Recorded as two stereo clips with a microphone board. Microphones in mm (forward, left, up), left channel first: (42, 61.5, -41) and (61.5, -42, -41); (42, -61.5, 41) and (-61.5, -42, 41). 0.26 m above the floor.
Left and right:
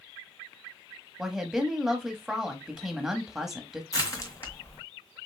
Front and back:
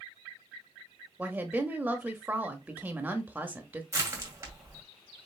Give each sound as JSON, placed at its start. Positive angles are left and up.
{"t": 1.2, "sound": "a woman speaking", "azimuth_deg": -155, "distance_m": 1.0}
{"t": 3.9, "sound": "crushing", "azimuth_deg": 130, "distance_m": 1.8}